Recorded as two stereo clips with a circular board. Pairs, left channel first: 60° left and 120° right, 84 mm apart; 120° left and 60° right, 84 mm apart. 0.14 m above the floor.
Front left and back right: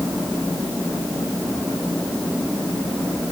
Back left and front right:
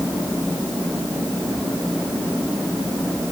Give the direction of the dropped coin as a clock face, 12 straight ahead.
I don't hear a dropped coin.